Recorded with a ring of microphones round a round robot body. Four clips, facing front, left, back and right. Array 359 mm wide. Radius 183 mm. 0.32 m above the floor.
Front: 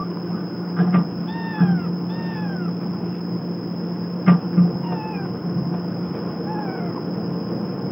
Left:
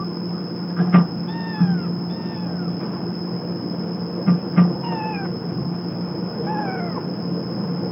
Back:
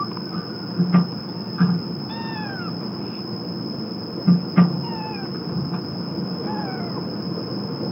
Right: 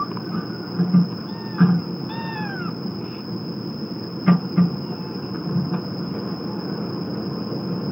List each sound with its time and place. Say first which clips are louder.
0.0 s an insect: even, front 1 dB; 135° right, 4.5 m